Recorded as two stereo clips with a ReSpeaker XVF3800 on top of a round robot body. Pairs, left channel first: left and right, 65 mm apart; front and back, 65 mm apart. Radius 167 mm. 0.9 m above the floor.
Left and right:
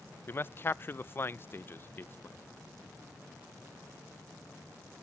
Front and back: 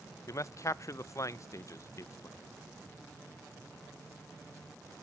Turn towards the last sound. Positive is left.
turn(degrees=35)